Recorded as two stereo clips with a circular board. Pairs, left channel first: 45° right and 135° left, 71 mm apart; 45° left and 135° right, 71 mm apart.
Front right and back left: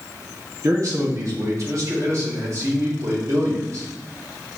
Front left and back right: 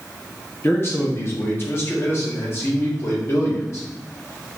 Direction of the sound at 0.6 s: 95° left.